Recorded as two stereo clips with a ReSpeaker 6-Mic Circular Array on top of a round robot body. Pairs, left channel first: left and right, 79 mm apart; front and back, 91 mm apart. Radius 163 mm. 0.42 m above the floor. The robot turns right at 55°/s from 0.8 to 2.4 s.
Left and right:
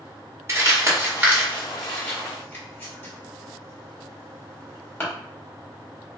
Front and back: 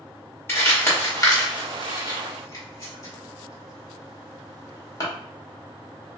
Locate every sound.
0.5 s crumpling: 55° right, 1.7 m; by 5.0 s 35° left, 1.7 m